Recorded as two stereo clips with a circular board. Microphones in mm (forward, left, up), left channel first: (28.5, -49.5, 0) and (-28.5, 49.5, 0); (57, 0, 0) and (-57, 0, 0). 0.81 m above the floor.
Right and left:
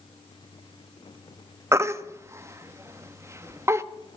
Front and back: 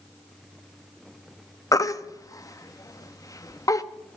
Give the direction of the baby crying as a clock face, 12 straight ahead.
10 o'clock.